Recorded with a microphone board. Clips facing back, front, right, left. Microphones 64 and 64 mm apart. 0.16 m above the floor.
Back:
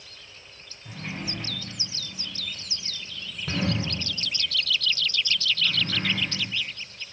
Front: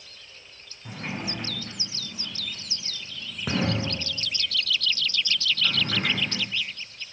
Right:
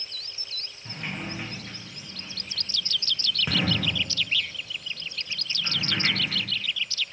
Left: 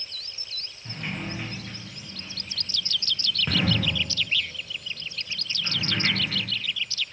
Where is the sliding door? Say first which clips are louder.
Front 2 dB, left 1 dB; 5° right, 1.9 m.